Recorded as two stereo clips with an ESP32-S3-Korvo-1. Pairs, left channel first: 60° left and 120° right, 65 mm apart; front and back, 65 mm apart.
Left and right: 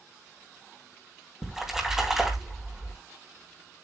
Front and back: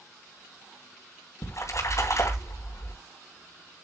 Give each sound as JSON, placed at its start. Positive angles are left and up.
{"t": 1.4, "sound": "a splash", "azimuth_deg": -35, "distance_m": 3.0}